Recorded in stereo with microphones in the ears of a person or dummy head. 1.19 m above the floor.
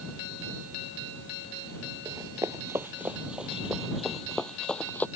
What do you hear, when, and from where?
2.0 s running footsteps: 20° right (ahead or behind); by 5.1 s 10° left (ahead or behind)